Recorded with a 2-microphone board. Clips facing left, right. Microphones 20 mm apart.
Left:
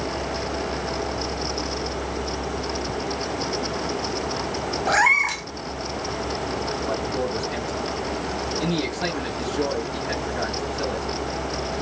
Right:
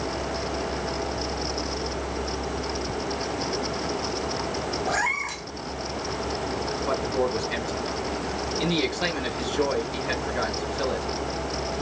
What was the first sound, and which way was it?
A cat meowing, 25° left (ahead or behind).